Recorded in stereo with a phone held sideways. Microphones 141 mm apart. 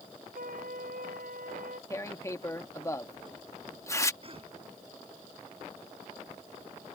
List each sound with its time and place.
0.3 s a trumpet: 85° right
1.9 s tearing paper: 20° left (ahead or behind)
4.2 s a cough: 40° right (ahead or behind)